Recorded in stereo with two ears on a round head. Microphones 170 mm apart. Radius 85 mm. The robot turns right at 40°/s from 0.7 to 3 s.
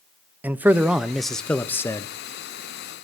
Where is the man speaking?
10° right (ahead or behind), 0.6 m; by 2.1 s 15° left (ahead or behind), 0.6 m.